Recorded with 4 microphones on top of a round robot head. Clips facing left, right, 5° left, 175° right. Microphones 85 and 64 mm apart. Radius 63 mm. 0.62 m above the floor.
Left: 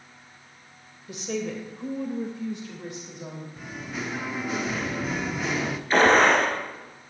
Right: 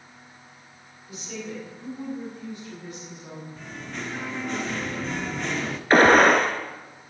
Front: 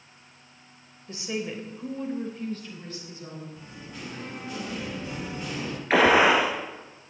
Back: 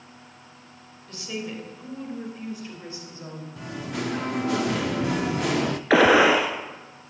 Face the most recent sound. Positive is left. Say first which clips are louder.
# right 3 dB, back 2 dB
turn(degrees=-145)